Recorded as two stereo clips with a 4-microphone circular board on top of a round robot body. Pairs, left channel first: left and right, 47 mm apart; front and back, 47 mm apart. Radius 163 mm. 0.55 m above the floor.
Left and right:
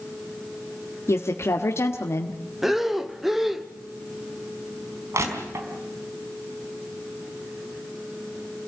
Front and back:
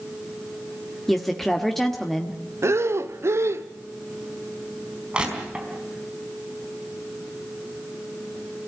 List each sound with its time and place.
1.1 s a woman speaking: 85° left, 1.9 m
2.6 s breathing: 175° right, 1.3 m
5.1 s crushing: 110° right, 4 m